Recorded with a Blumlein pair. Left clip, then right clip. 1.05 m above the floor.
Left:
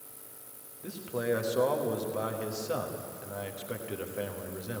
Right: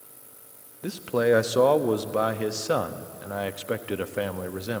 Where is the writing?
No writing in this recording.